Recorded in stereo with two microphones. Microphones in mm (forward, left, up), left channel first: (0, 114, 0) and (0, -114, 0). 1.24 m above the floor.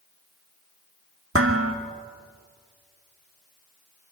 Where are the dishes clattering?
80° right, 1.7 m.